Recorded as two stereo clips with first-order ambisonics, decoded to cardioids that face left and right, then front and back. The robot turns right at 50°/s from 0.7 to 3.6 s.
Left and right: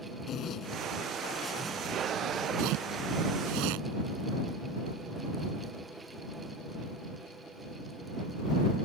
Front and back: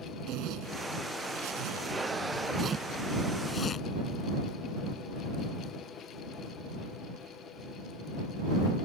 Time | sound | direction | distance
0.3 | a zipper | 145° left | ?